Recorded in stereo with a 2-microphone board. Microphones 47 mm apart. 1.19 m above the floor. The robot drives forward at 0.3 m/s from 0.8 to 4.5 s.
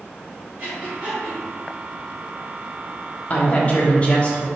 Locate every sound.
0.6 s breathing: 45° right (ahead or behind), 1.6 m; by 1.4 s 40° right (ahead or behind), 1.7 m
3.3 s a woman speaking: 35° left (ahead or behind), 0.8 m; by 4.5 s 25° left (ahead or behind), 1.1 m